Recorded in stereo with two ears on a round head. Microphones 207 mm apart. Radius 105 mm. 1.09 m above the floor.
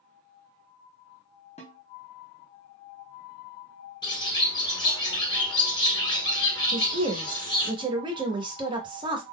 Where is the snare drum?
30° left (ahead or behind), 0.8 m.